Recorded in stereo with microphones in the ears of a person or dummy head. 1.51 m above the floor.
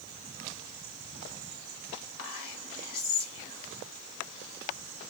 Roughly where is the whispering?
Left.